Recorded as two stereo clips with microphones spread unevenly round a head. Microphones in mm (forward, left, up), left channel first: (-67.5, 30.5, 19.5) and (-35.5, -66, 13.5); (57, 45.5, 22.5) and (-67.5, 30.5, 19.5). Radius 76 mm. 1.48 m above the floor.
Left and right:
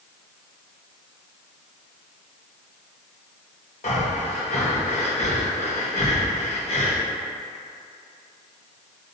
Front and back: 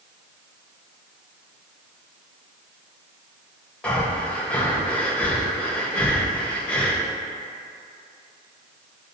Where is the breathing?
85° left, 1.2 m.